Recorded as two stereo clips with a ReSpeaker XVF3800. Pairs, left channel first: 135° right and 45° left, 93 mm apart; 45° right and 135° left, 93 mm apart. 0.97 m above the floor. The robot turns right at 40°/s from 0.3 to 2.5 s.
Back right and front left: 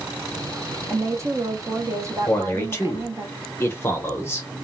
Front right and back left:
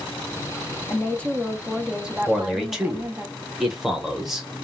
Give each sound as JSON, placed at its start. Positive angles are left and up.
{"t": 0.9, "sound": "a woman speaking", "azimuth_deg": 10, "distance_m": 0.7}
{"t": 2.3, "sound": "a man speaking", "azimuth_deg": -155, "distance_m": 0.8}